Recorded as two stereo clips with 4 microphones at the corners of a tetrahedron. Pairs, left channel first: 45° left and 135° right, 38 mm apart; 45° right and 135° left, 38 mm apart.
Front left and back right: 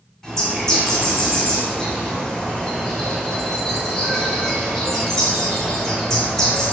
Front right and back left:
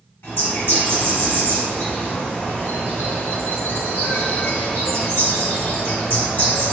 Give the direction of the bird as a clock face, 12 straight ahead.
1 o'clock.